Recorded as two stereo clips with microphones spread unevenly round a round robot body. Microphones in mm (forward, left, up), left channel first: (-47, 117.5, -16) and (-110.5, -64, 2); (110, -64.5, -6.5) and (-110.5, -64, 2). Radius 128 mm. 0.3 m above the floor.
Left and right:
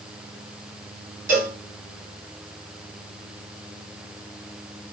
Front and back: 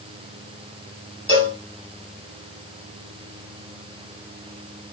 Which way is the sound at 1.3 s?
120° right.